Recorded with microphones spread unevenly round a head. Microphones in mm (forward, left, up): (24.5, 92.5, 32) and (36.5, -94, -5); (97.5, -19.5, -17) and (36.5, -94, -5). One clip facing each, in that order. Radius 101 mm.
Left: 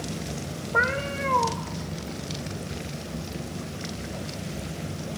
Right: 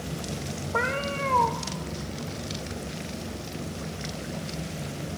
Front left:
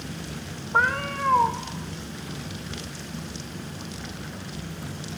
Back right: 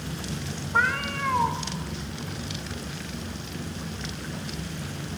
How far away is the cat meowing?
About 0.7 m.